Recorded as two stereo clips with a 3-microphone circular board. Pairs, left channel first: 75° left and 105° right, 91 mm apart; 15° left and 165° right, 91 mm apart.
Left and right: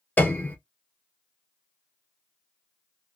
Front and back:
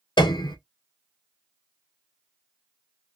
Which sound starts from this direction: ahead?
A piano, at 0.2 s.